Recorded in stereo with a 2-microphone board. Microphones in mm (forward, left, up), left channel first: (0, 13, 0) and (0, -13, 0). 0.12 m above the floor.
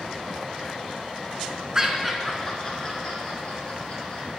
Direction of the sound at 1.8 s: 20° right (ahead or behind).